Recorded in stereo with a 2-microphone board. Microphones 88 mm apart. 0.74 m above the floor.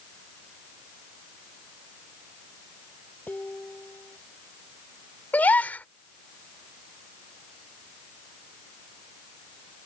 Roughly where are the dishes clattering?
Centre.